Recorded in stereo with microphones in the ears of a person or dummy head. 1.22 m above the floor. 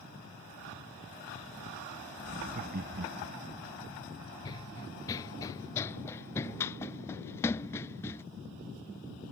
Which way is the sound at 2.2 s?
35° right (ahead or behind).